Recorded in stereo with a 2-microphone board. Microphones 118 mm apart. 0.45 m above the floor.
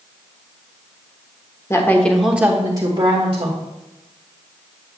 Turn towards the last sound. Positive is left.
turn(degrees=-55)  # may be behind; listen again after turning